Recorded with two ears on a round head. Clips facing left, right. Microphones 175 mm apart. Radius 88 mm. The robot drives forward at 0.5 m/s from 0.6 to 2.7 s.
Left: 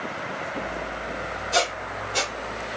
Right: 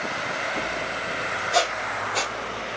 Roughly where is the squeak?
Centre.